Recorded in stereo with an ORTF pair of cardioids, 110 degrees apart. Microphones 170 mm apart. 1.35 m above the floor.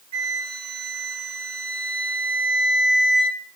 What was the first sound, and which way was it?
A flute, 40° right.